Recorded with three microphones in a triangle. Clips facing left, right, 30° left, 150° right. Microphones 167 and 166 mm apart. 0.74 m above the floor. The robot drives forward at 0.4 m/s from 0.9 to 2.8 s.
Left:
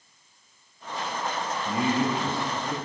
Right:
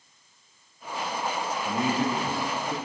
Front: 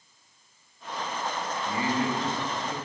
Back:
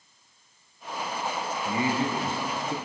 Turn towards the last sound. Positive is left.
turn(degrees=180)